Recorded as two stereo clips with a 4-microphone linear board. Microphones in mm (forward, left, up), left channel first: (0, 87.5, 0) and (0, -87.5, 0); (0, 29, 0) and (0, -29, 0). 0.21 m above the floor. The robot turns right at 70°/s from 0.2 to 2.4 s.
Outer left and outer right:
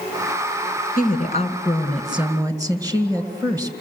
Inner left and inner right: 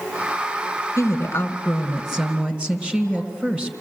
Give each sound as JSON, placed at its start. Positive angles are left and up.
{"t": 1.0, "sound": "a woman speaking", "azimuth_deg": 105, "distance_m": 2.0}